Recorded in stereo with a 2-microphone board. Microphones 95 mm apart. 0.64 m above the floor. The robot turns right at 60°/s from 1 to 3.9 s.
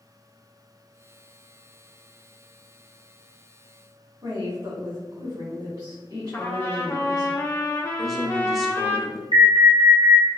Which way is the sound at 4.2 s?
55° right (ahead or behind).